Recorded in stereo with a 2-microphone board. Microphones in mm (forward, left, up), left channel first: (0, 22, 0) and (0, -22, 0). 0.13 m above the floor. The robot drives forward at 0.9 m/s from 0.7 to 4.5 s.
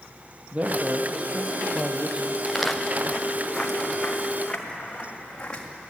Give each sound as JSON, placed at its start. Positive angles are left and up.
{"t": 0.5, "sound": "a man speaking", "side_deg": -35, "distance_m": 3.0}
{"t": 2.5, "sound": "footsteps", "side_deg": -5, "distance_m": 2.5}